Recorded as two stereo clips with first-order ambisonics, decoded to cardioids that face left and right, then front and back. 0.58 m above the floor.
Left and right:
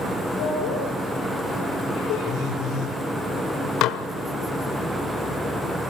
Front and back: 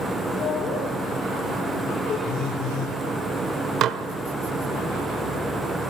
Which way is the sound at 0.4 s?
60° left.